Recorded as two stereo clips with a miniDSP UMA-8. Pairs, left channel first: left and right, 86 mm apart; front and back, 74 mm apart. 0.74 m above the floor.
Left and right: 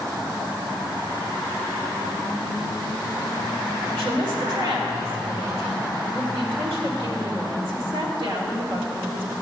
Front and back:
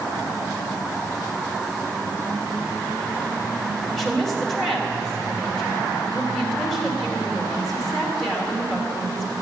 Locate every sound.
3.9 s a woman speaking: 85° right, 1.7 m